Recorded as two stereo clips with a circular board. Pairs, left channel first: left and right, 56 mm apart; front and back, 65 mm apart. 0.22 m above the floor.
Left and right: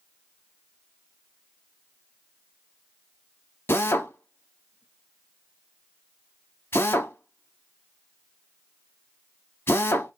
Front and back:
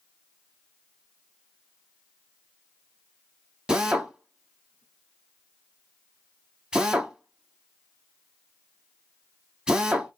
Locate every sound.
3.7 s a drill: 105° left, 0.6 m